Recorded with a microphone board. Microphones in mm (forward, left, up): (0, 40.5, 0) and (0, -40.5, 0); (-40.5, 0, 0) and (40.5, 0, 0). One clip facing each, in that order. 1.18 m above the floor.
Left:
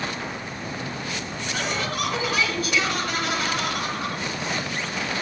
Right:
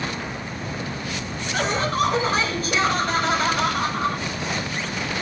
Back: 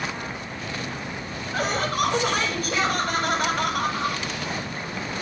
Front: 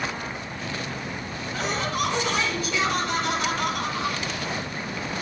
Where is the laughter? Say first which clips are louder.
Right 6 dB, back 3 dB; 145° right, 8 m.